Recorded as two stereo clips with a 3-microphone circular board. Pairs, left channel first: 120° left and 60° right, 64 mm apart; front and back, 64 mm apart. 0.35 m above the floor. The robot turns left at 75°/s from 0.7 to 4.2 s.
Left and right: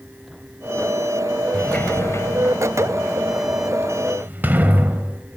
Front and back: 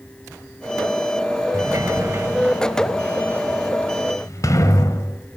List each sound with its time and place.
1.5 s a sliding door: 165° right, 1.9 m; by 5.2 s 5° right, 1.9 m